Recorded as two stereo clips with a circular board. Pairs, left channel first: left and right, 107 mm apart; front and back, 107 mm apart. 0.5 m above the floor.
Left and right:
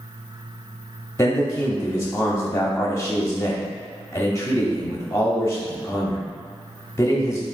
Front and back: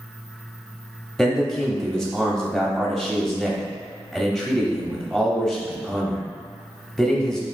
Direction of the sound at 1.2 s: 85° left.